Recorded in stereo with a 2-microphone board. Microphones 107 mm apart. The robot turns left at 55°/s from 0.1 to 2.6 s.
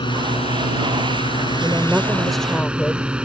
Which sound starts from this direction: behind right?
A woman speaking, at 1.6 s.